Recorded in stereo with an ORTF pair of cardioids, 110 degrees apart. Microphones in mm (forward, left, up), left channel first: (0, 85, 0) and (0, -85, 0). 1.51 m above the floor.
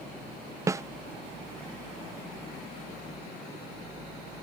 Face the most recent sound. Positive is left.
turn(degrees=-15)